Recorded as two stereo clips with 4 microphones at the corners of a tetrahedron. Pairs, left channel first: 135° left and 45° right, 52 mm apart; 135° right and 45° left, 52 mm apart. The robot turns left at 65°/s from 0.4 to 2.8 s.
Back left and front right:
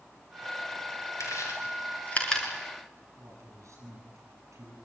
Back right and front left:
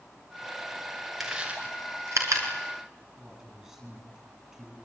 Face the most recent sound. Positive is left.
turn(degrees=-30)